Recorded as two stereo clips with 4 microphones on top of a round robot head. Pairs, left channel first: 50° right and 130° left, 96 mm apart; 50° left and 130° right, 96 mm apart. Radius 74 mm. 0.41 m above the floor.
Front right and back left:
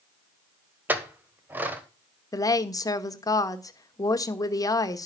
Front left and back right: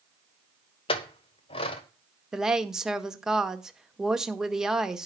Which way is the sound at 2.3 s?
50° right.